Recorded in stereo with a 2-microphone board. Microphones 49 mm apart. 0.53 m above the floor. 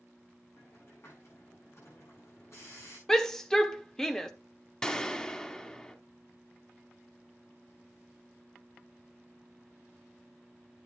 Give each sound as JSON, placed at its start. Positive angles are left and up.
{"t": 0.6, "sound": "a hiss", "side_deg": 65, "distance_m": 9.5}
{"t": 3.1, "sound": "a shout", "side_deg": 10, "distance_m": 1.1}
{"t": 4.8, "sound": "a gunshot", "side_deg": 15, "distance_m": 1.1}